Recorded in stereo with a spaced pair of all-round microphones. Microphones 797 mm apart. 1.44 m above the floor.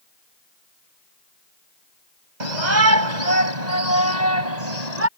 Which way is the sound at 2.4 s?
60° right (ahead or behind).